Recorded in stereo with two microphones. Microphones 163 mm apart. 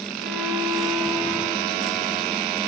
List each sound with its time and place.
0.2 s a violin: 80° right, 7 m